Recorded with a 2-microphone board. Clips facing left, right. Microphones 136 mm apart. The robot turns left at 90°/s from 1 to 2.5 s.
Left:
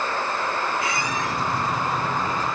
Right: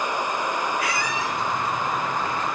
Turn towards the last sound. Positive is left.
turn(degrees=20)